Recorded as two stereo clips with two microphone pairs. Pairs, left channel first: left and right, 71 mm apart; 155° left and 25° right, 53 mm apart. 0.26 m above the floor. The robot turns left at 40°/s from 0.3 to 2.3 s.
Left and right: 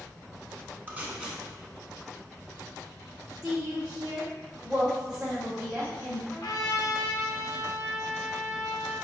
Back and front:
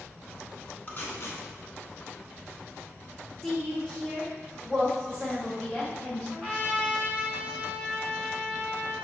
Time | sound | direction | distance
0.9 | tape being pulled | 155° right | 0.7 m
3.4 | a woman speaking | 145° right | 1.1 m
6.3 | a trumpet | 95° left | 1.1 m